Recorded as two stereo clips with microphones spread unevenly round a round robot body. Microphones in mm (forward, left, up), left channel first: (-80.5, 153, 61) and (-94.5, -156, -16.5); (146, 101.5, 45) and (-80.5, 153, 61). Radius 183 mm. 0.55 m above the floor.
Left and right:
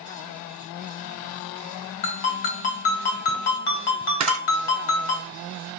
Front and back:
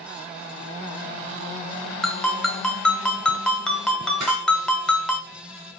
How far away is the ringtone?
About 1.4 m.